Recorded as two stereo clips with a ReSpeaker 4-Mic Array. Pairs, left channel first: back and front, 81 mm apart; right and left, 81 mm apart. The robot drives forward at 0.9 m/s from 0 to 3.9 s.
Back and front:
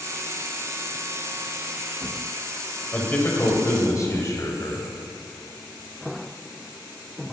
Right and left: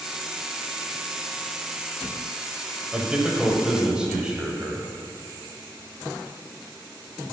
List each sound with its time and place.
2.9 s a man speaking: 150° left, 1.5 m; by 4.9 s 170° left, 1.9 m